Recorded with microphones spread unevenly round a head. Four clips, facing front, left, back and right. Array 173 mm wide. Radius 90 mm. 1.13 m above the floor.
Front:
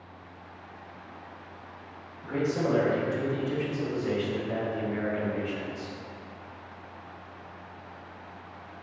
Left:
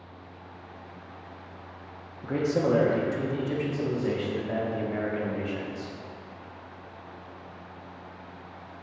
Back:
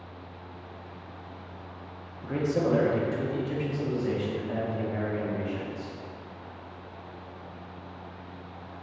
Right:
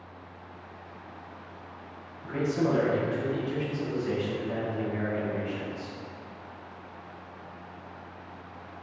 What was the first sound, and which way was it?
A man speaking, 115° left.